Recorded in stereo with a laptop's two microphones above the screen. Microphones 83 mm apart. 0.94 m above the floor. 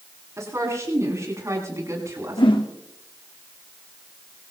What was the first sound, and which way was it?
A woman speaking, 35° right (ahead or behind).